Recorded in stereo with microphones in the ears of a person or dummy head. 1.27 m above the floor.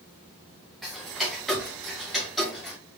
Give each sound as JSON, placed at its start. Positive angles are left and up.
{"t": 0.8, "sound": "ticking", "side_deg": 0, "distance_m": 0.5}